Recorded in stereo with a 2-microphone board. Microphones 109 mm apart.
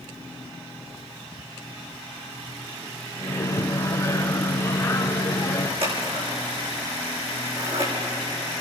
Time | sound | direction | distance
3.2 | a microwave | 25° left (ahead or behind) | 1.2 m
5.8 | scissors | 60° right (ahead or behind) | 8.5 m